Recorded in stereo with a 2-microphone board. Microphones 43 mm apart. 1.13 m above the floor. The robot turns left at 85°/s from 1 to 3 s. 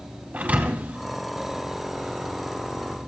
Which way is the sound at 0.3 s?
35° right (ahead or behind).